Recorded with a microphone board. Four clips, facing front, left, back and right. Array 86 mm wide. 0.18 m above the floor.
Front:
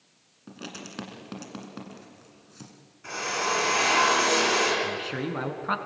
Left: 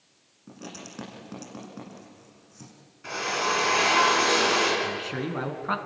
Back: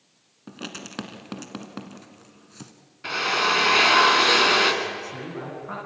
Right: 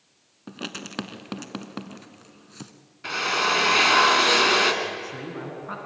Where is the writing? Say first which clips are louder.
Right 5 dB, back 3 dB; 115° right, 1.5 m.